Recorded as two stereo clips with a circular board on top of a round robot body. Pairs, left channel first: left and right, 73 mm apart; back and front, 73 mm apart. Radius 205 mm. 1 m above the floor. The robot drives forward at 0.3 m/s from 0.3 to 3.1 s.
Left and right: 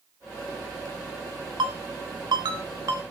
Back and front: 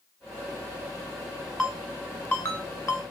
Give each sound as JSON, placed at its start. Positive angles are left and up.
{"t": 1.6, "sound": "a ringtone", "azimuth_deg": -90, "distance_m": 0.6}